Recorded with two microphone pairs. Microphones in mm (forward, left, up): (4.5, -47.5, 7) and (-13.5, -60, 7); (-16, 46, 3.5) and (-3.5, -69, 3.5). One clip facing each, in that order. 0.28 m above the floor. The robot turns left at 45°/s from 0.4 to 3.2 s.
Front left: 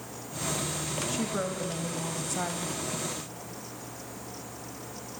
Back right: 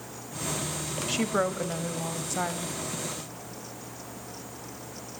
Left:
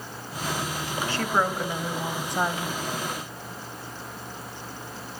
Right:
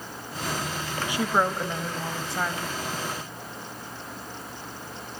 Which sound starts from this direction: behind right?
A woman speaking, at 1.1 s.